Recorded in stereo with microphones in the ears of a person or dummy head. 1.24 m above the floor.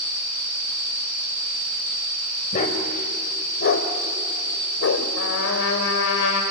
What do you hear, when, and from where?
2.5 s a dog barking: 40° left (ahead or behind), 2 m; by 5.1 s 65° left (ahead or behind), 1.9 m
5.2 s a trumpet: 70° left (ahead or behind), 3.5 m